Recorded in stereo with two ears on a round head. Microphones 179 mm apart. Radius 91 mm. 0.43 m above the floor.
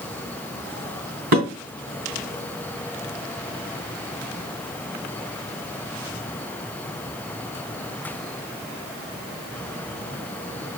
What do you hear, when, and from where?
1.3 s dishes clattering: 45° right (ahead or behind), 2.5 m